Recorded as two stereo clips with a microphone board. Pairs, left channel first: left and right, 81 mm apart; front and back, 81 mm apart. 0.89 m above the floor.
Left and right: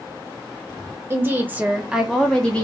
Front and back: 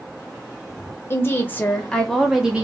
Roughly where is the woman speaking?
Ahead right.